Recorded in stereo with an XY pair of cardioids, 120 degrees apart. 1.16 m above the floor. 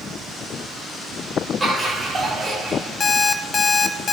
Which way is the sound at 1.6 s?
5° right.